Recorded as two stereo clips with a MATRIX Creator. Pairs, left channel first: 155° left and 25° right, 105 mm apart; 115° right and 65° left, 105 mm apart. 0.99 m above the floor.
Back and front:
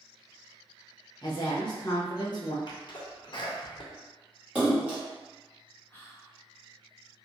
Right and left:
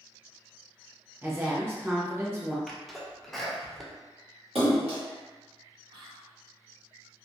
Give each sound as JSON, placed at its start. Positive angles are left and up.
{"t": 1.2, "sound": "a woman speaking", "azimuth_deg": 130, "distance_m": 0.9}
{"t": 2.7, "sound": "a sneeze", "azimuth_deg": 160, "distance_m": 0.7}
{"t": 4.5, "sound": "a splash", "azimuth_deg": 55, "distance_m": 1.3}
{"t": 5.9, "sound": "whispering", "azimuth_deg": 90, "distance_m": 0.6}